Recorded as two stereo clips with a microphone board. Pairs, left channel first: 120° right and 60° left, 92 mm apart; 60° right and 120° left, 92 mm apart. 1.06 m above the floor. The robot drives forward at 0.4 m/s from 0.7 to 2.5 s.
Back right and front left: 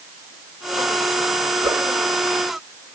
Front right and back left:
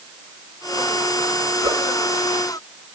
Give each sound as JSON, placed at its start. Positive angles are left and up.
{"t": 1.6, "sound": "a whoosh", "azimuth_deg": 95, "distance_m": 1.8}